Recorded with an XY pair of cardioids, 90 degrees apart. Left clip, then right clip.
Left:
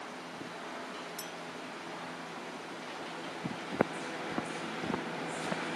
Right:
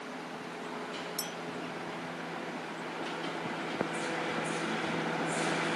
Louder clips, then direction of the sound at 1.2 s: Right 4 dB; 55° right.